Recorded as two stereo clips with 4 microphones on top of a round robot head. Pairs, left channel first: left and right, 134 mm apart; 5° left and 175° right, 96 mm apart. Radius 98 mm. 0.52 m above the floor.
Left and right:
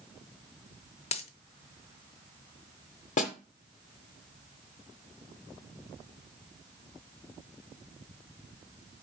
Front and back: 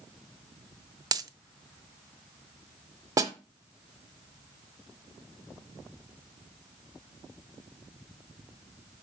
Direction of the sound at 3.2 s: 130° left.